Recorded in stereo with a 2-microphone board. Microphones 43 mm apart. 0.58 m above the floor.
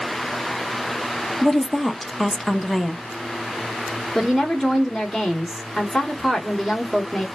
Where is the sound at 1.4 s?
Centre (ahead or behind), 0.6 m.